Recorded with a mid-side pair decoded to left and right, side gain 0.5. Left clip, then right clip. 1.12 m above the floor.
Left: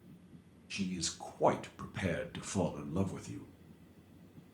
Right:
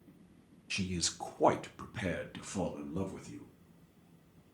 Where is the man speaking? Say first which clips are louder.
Right 3 dB; 40° right, 1.1 m; by 3.5 s 35° left, 1.5 m.